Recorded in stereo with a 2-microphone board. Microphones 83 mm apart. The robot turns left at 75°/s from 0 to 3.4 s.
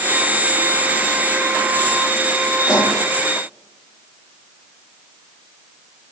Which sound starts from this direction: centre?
A pop, at 2.7 s.